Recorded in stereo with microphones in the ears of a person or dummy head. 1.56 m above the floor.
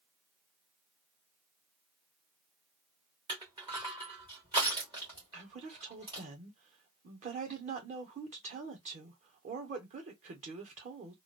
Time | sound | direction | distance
3.3 | crushing | 25° right (ahead or behind) | 1.4 m
5.3 | a woman speaking | 45° right (ahead or behind) | 1.4 m